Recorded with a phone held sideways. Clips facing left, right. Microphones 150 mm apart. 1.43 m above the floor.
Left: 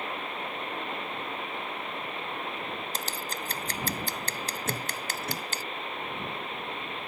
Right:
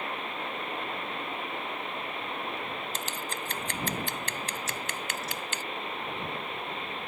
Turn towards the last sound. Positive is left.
turn(degrees=60)  # may be behind; listen again after turning